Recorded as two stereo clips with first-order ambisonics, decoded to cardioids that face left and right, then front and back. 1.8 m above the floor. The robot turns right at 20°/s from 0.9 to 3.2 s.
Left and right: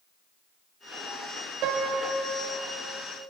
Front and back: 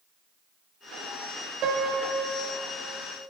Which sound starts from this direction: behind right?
A piano, at 1.6 s.